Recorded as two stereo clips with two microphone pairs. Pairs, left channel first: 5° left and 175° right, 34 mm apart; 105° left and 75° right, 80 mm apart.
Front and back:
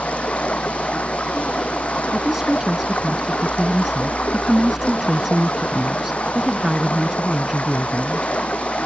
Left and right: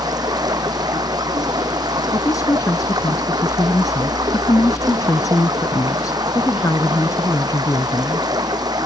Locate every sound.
0.0 s running water: 45° right
2.1 s a woman speaking: 115° left